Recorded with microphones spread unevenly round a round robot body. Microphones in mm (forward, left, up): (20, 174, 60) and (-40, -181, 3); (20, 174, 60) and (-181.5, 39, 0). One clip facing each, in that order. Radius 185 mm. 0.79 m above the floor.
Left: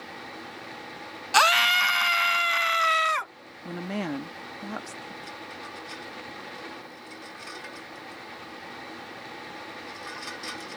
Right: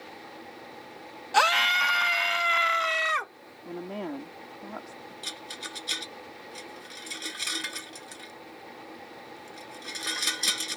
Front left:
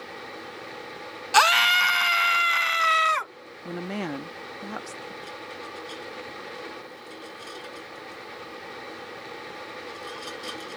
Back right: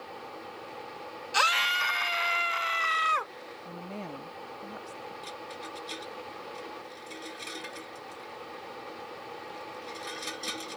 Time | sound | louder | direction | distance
1.3 | a scream | left 1 dB, front left 10 dB | 25° left | ?
3.6 | a woman speaking | left 3 dB, front left 10 dB | 40° left | ?
5.2 | a rattle | left 2 dB, front left 3 dB | 70° right | ?